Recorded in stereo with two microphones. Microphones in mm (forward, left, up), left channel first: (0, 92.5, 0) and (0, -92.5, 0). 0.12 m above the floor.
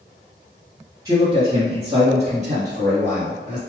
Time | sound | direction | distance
1.1 | a man speaking | 20° right (ahead or behind) | 1.7 m